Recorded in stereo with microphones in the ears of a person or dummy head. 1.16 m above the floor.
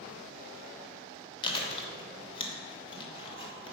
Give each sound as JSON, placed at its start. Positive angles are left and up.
{"t": 1.4, "sound": "chewing", "side_deg": 30, "distance_m": 1.4}